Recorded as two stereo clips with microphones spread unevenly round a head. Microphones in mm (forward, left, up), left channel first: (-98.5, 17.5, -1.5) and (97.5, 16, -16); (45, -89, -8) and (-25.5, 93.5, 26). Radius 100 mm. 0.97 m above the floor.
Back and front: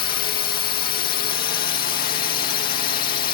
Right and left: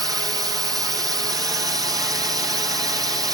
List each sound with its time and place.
0.0 s a drone: 175° right